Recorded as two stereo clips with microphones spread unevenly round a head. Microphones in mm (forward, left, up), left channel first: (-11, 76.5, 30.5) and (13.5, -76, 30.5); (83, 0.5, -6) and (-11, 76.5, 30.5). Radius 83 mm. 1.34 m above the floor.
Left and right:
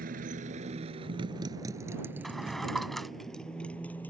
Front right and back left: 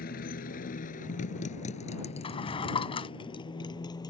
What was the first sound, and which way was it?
A motorcycle, 45° right.